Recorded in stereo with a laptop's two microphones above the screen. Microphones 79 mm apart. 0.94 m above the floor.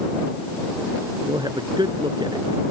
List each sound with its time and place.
1.3 s a man speaking: 70° right (ahead or behind); by 2.6 s 75° right (ahead or behind)